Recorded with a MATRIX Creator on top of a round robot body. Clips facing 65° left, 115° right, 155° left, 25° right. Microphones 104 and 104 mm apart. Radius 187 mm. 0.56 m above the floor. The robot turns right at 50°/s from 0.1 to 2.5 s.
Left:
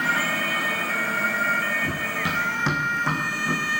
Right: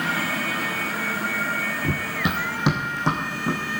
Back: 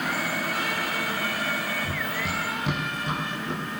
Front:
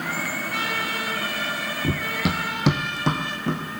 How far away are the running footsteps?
About 0.8 m.